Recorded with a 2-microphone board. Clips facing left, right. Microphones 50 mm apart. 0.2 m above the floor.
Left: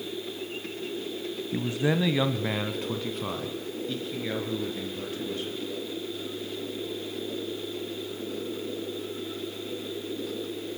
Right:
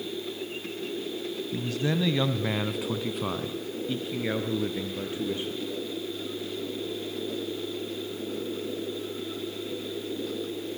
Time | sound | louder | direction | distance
1.5 | a man speaking | left 3 dB | 30° left (ahead or behind) | 1.2 m